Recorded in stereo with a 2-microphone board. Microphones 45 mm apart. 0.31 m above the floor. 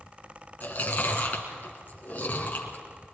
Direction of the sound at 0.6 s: 35° left (ahead or behind).